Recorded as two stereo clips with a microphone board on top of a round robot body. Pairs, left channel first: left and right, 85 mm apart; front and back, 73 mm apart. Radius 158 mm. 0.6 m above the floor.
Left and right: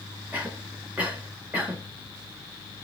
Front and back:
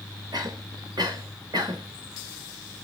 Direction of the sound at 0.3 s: 160° right.